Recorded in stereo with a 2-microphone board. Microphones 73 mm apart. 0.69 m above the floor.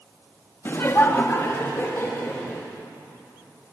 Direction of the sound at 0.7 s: 30° left (ahead or behind).